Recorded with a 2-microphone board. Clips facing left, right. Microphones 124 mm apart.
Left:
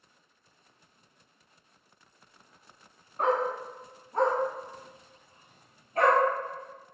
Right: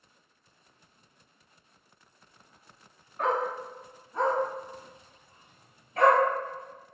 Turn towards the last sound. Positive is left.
turn(degrees=45)  # may be behind; listen again after turning